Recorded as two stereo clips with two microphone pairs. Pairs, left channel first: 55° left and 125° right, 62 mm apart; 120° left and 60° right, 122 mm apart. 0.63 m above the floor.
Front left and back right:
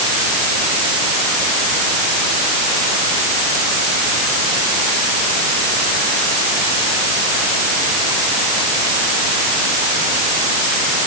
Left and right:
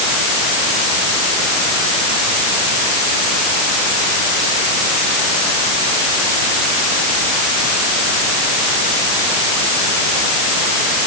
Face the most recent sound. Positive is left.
No sound to turn to.